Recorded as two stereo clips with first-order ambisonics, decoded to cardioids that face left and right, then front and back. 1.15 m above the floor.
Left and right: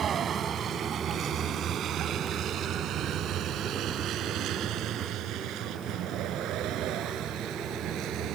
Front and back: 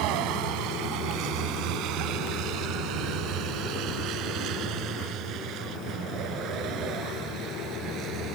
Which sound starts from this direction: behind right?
A vehicle, at 0.0 s.